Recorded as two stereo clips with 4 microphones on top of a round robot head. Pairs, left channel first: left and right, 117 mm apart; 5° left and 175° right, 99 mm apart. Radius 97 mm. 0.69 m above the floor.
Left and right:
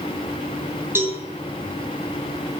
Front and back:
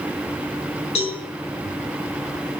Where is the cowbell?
20° right, 4 m.